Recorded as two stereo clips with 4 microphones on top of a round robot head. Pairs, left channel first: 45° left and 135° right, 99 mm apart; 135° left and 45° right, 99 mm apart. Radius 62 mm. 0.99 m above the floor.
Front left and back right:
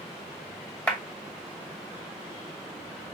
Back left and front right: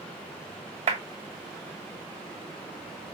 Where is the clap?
30° right, 1.7 m.